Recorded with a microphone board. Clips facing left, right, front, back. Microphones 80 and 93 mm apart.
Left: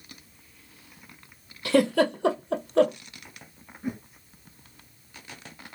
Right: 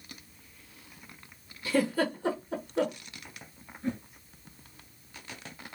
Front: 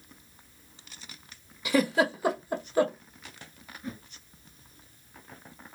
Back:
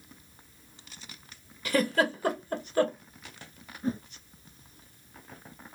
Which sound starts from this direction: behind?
A whoosh, at 3.8 s.